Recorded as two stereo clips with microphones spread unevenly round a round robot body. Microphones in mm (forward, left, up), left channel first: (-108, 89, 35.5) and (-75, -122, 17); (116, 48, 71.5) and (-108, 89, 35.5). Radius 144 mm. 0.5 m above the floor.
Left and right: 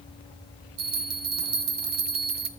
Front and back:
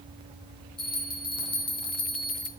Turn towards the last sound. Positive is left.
turn(degrees=-85)